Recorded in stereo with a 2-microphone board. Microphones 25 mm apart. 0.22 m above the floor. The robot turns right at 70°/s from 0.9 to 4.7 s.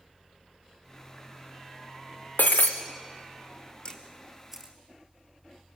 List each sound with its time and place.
2.4 s breaking glass: 80° left, 1.7 m; by 2.7 s 75° left (ahead or behind), 1.7 m
3.9 s a camera shutter: 35° left (ahead or behind), 2.5 m; by 4.8 s 20° right (ahead or behind), 2.5 m